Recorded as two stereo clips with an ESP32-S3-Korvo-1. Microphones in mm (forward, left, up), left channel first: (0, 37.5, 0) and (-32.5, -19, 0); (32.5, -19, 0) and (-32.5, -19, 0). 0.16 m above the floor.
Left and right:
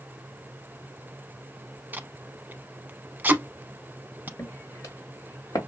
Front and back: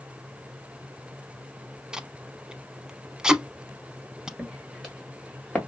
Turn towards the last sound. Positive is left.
turn(degrees=70)